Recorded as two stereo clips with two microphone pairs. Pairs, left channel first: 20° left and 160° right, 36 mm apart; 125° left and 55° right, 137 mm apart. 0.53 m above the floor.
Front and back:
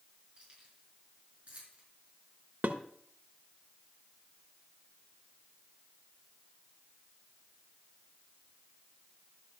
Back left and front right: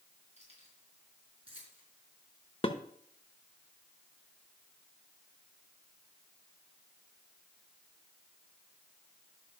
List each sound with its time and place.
0.4 s keys jangling: 95° right, 5 m; by 1.8 s 105° right, 4 m
2.6 s dishes clattering: 170° left, 1.0 m